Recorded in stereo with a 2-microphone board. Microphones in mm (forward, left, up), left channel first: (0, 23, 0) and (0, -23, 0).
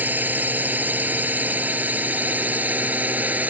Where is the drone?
45° right (ahead or behind); by 3.5 s 40° right (ahead or behind).